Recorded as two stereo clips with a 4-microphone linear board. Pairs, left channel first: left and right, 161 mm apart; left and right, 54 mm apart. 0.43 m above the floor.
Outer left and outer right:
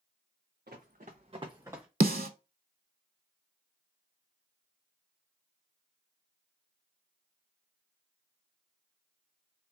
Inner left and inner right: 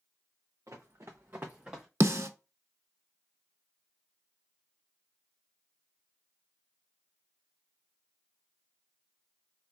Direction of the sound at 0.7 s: 70° right (ahead or behind).